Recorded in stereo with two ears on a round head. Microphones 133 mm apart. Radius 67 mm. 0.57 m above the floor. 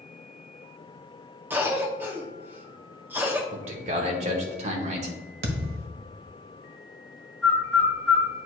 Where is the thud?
65° right (ahead or behind), 1.1 m.